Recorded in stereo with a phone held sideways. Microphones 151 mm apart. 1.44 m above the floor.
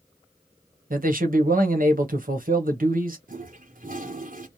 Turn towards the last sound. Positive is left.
turn(degrees=-65)  # may be behind; listen again after turning